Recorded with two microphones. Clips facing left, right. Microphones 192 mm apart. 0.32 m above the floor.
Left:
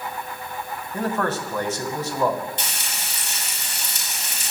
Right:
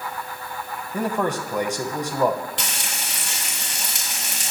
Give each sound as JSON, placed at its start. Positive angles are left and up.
{"t": 0.9, "sound": "a man speaking", "side_deg": -15, "distance_m": 2.0}
{"t": 2.6, "sound": "frying", "side_deg": -80, "distance_m": 5.5}